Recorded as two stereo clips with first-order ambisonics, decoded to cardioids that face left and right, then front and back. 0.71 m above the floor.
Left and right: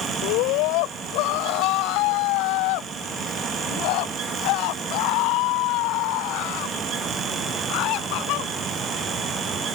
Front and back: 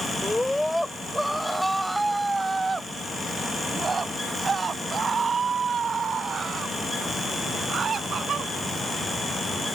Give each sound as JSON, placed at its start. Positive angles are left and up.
{"t": 0.2, "sound": "a scream", "azimuth_deg": 90}